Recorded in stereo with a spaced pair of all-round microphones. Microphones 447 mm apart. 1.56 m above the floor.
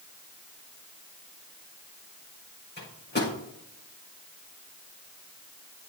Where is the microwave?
25° left (ahead or behind), 7 m.